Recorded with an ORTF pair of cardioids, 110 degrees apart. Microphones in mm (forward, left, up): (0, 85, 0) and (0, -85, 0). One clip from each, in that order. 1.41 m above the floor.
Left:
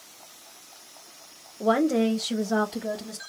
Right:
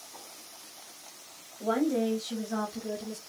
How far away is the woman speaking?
About 1.1 m.